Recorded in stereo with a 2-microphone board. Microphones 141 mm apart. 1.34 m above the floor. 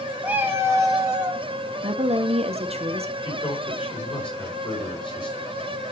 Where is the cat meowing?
10° right (ahead or behind), 1.2 m; by 1.4 s 30° right (ahead or behind), 1.4 m.